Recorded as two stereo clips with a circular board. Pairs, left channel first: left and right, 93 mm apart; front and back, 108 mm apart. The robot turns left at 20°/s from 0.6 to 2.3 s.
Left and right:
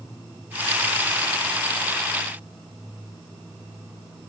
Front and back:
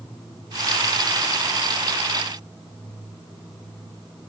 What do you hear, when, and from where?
Only background noise.